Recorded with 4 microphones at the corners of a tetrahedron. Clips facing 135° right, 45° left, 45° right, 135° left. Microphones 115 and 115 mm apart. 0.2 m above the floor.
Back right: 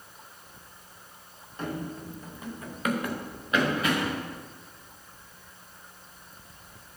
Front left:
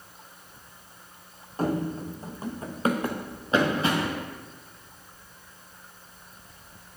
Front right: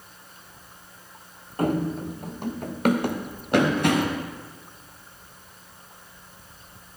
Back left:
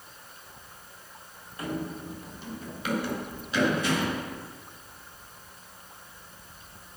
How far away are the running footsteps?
About 0.9 m.